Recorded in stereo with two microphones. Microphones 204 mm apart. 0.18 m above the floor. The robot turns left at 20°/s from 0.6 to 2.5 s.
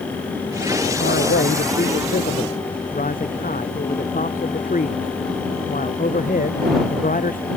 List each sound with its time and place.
1.0 s a man speaking: 70° left; by 7.5 s 40° left